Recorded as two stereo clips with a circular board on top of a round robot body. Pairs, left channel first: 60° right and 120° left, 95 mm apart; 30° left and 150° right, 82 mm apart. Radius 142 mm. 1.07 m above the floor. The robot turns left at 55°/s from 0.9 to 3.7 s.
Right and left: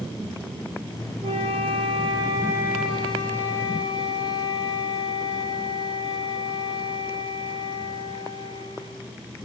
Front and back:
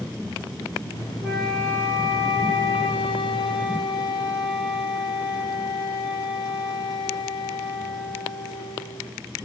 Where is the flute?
125° left, 2 m; by 9.1 s 10° right, 2 m.